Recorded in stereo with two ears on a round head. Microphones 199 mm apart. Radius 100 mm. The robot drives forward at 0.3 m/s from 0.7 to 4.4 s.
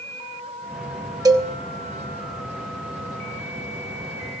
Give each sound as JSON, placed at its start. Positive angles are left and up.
{"t": 1.2, "sound": "a cowbell", "side_deg": -15, "distance_m": 1.0}